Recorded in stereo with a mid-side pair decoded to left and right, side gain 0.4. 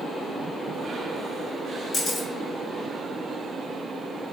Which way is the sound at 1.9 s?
40° left.